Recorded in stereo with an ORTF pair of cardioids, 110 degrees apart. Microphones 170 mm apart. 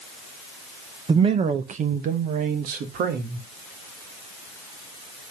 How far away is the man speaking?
About 1.0 m.